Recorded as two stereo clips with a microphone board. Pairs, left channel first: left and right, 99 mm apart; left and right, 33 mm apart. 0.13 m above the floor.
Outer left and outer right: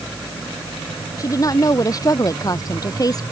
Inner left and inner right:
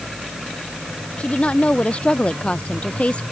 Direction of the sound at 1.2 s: 35° left (ahead or behind).